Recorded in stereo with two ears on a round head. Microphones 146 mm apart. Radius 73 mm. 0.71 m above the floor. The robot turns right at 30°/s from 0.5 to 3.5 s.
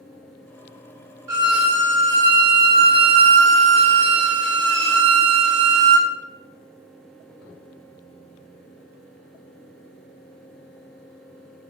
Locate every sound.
1.3 s a violin: 160° right, 0.8 m; by 6.1 s 90° right, 0.8 m